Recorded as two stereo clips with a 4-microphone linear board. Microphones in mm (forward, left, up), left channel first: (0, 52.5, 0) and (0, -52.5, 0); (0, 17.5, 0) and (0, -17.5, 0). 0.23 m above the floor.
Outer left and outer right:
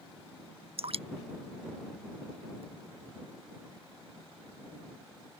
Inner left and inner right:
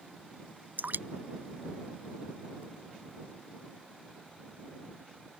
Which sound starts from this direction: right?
Dripping, at 0.8 s.